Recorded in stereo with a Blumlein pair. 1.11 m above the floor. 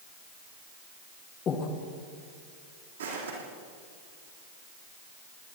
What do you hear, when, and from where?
1.5 s breathing: 30° left, 1.5 m
3.0 s footsteps: 70° right, 3.5 m